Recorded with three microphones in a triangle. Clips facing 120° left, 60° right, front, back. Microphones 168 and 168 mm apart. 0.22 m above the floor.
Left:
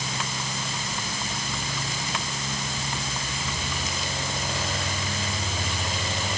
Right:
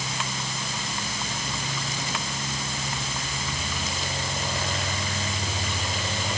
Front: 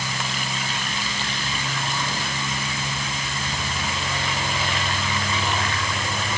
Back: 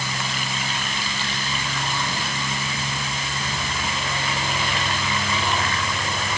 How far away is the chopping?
No chopping in this recording.